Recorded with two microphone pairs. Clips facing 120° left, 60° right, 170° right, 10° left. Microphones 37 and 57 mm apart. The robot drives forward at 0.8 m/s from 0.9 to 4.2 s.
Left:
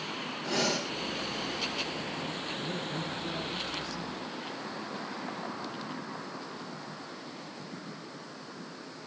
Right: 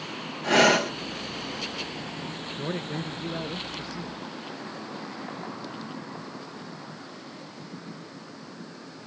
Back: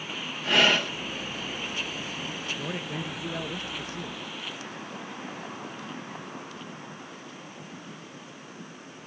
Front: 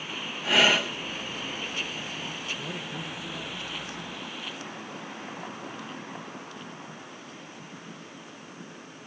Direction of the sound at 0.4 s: 80° right.